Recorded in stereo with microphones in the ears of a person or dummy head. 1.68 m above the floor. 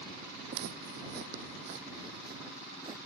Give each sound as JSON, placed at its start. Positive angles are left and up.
{"t": 0.5, "sound": "footsteps", "side_deg": -55}